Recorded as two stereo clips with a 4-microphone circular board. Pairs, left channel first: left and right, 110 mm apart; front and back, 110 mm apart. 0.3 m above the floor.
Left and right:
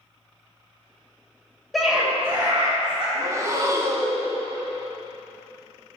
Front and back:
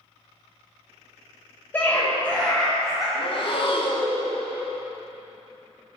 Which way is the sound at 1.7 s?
Straight ahead.